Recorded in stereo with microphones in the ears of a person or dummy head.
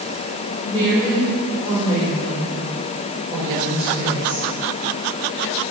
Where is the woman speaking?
25° right (ahead or behind), 5.5 m; by 4.5 s 5° right (ahead or behind), 5 m.